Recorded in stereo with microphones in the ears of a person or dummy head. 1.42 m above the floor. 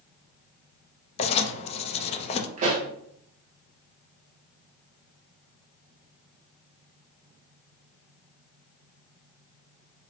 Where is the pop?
40° right (ahead or behind), 0.9 m.